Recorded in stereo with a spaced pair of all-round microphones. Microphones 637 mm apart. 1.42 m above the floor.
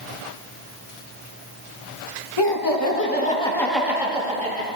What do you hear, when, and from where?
2.4 s laughter: 40° left (ahead or behind), 1.7 m; by 4.7 s 15° right (ahead or behind), 3 m